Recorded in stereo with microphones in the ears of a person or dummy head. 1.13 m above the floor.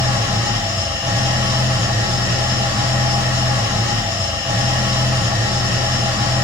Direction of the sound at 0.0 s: 10° right (ahead or behind).